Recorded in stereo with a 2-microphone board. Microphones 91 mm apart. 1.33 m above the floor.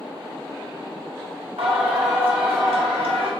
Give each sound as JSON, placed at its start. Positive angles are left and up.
{"t": 1.6, "sound": "singing", "side_deg": -85, "distance_m": 1.0}